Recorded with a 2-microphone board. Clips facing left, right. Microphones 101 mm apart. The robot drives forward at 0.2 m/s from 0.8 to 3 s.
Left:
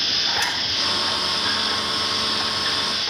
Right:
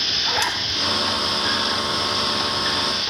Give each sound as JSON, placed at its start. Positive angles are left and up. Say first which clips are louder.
{"t": 0.3, "sound": "a zipper", "louder": "right 3 dB", "side_deg": -65, "distance_m": 1.2}